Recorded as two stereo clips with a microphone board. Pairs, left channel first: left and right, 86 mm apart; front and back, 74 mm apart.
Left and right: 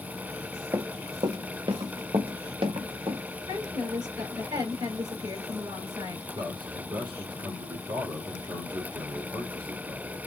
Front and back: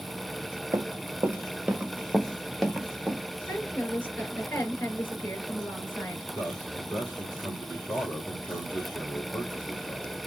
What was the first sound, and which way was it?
Running footsteps, 140° right.